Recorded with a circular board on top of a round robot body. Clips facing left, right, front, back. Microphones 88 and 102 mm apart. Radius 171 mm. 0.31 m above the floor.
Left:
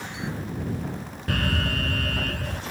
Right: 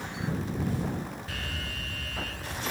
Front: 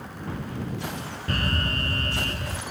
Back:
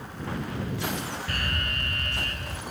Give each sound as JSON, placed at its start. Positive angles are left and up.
{"t": 1.3, "sound": "an alarm", "azimuth_deg": 55}